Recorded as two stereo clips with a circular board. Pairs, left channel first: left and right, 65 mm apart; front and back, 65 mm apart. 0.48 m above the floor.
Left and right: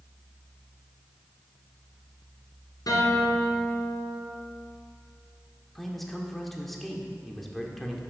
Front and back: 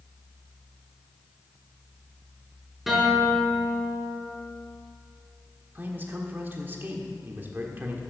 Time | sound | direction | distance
2.9 | a guitar | 95° left | 4 m
5.8 | a man speaking | 175° left | 1.5 m